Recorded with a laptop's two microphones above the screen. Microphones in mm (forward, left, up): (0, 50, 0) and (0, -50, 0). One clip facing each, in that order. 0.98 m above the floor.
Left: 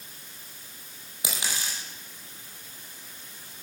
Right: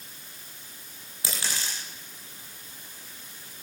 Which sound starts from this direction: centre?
A dropped coin, at 1.2 s.